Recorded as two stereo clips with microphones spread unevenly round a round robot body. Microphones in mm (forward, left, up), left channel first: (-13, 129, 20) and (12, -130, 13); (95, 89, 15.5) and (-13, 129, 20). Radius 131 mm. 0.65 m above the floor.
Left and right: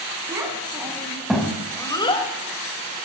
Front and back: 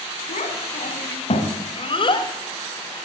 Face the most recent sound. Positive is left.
turn(degrees=30)